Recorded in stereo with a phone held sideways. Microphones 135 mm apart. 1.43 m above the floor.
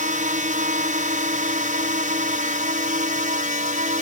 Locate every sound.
0.0 s a drone: 70° right (ahead or behind)